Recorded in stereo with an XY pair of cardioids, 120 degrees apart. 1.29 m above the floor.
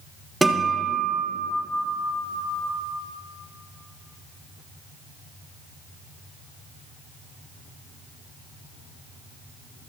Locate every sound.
0.4 s a guitar: 10° right, 1.3 m